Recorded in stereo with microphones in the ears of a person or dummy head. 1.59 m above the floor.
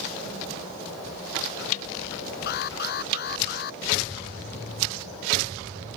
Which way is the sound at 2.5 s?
55° left (ahead or behind).